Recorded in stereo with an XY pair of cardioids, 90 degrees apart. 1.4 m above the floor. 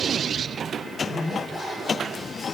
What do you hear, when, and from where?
0.8 s a zipper: 35° left, 1.0 m